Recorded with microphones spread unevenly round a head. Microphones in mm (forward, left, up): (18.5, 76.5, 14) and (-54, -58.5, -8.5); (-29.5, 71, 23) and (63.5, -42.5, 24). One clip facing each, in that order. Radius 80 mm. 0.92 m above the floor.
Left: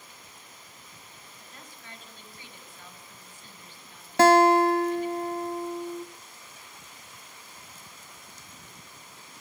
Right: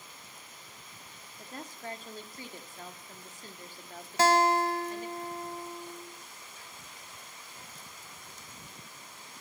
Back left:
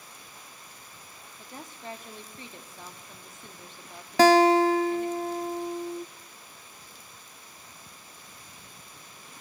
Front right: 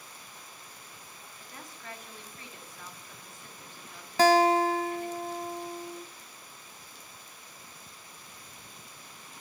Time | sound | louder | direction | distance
1.4 | a woman speaking | right 11 dB, back left 6 dB | 165° right | 2 m
4.2 | a guitar | left 7 dB, back left 4 dB | 100° left | 0.7 m